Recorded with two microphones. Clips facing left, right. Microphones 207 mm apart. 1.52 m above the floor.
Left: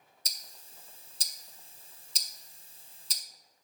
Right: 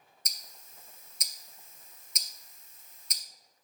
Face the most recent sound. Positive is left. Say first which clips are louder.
# left 1 dB
turn(degrees=35)  # may be behind; listen again after turning